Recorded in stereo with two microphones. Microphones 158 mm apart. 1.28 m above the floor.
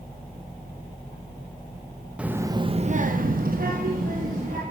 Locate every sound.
2.2 s a child speaking: 5° right (ahead or behind), 0.7 m; by 4.6 s 55° right (ahead or behind), 1.6 m